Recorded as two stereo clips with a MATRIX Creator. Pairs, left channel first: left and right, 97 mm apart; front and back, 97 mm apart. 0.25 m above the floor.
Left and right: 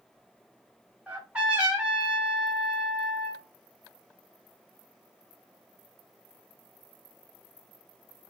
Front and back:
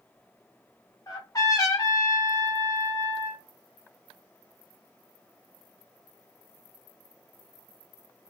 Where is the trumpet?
20° right, 1.6 m.